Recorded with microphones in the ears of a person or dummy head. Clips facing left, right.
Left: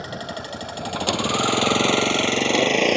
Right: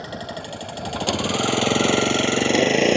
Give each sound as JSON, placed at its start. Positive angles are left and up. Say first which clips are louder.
{"t": 0.0, "sound": "a vehicle", "louder": "even", "side_deg": 0}